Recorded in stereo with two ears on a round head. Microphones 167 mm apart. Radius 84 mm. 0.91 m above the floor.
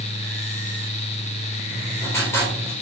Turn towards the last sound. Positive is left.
turn(degrees=15)  # may be behind; listen again after turning